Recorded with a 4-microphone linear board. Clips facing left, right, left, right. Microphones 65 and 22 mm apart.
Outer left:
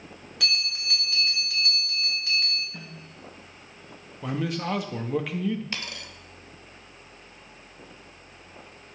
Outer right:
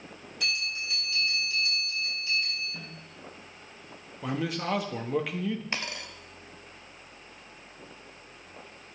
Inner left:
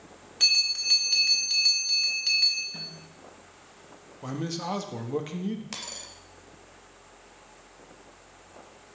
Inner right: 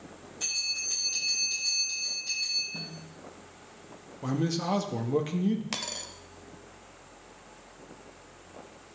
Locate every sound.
0.4 s a bell: 75° left (ahead or behind), 1.8 m
2.7 s a snare drum: 40° left (ahead or behind), 5.5 m
4.2 s a man speaking: centre (ahead or behind), 0.7 m
5.7 s a dropped coin: 20° right (ahead or behind), 0.7 m